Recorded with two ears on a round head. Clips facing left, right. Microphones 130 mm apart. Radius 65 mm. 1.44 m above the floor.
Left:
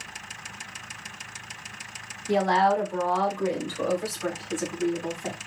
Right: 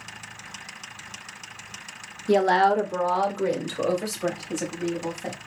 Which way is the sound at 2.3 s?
50° right (ahead or behind).